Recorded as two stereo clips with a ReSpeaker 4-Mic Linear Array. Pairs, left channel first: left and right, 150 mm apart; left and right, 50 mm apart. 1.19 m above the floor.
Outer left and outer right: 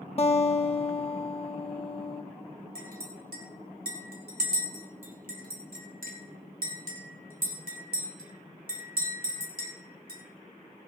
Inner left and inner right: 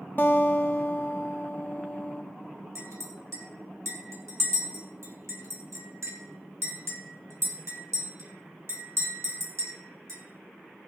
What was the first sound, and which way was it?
A guitar, 40° left (ahead or behind).